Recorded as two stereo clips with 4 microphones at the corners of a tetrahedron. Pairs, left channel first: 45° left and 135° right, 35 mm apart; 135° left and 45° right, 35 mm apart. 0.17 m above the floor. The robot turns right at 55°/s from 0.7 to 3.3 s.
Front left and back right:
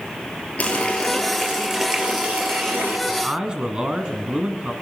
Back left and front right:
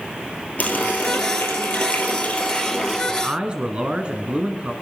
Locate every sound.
0.6 s a running tap: 95° left, 2.5 m; by 3.0 s 140° right, 2.5 m
3.1 s a man speaking: 95° right, 1.3 m; by 4.7 s 85° right, 1.3 m